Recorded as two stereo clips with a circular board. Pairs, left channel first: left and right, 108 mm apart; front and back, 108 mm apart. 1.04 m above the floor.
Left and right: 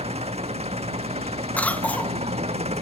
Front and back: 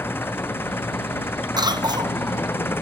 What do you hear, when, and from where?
0.0 s an engine running: 70° right
1.6 s a cough: 160° left